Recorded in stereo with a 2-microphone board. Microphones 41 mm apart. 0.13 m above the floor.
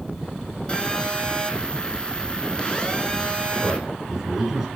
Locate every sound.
0.7 s a phone buzzing: 25° left (ahead or behind), 0.7 m
3.6 s a man speaking: 10° right (ahead or behind), 1.2 m